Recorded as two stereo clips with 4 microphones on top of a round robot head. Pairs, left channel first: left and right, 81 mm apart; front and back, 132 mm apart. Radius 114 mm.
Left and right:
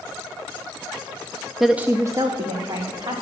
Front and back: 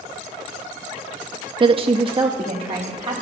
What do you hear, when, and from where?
1.6 s a woman speaking: straight behind, 0.5 m; by 3.2 s 125° right, 2 m